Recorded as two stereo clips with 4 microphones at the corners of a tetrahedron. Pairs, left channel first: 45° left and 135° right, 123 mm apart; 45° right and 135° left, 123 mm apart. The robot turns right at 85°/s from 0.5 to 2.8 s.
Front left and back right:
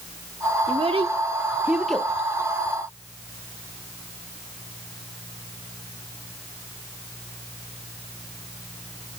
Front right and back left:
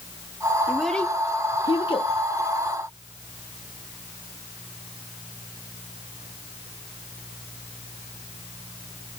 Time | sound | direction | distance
0.7 | a child speaking | 145° right | 0.6 m